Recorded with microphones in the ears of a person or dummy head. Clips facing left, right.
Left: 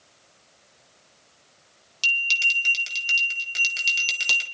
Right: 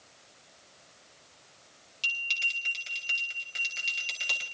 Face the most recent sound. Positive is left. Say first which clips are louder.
# left 8 dB
turn(degrees=60)  # may be behind; listen again after turning